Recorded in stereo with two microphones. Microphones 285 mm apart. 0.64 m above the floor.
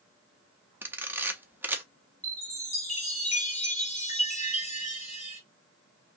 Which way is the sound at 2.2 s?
25° left (ahead or behind).